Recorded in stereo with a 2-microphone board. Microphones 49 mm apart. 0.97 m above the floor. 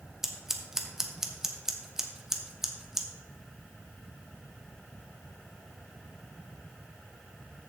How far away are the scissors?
About 0.9 m.